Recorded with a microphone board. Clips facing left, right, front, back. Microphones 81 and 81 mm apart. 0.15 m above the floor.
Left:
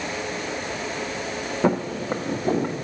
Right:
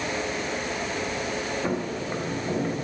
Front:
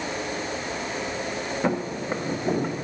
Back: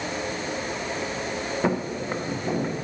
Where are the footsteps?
95° left, 1.1 m; by 2.7 s 80° left, 1.6 m.